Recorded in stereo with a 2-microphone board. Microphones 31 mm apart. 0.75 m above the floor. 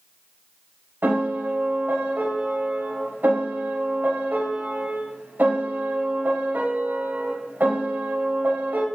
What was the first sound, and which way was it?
A piano, 75° right (ahead or behind).